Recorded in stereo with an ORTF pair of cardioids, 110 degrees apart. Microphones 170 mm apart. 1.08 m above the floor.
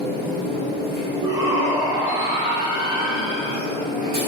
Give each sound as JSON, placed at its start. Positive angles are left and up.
{"t": 0.0, "sound": "a machine running", "azimuth_deg": -55, "distance_m": 1.8}
{"t": 1.2, "sound": "a shout", "azimuth_deg": -70, "distance_m": 1.8}